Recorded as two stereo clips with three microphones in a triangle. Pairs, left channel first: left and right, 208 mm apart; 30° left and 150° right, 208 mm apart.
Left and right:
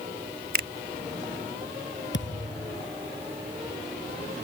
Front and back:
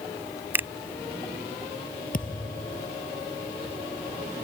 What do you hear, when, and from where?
0.5 s a finger snap: 70° right
2.1 s a thud: 75° left